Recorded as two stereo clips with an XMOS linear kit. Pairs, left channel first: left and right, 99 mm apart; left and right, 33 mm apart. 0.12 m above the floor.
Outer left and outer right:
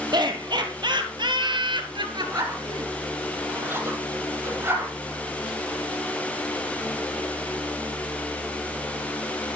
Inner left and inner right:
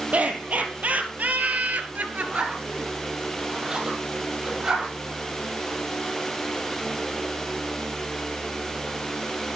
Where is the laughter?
45° right (ahead or behind), 3 m; by 2.9 s 40° right (ahead or behind), 1.6 m.